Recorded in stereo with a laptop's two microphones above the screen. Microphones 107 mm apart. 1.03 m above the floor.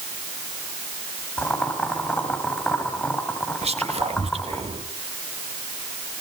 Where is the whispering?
70° right (ahead or behind), 2 m.